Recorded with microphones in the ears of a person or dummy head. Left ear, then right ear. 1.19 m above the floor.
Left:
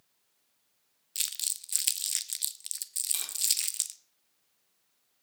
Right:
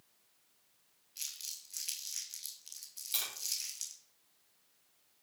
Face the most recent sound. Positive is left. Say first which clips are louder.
# right 5 dB
turn(degrees=0)  # may be behind; listen again after turning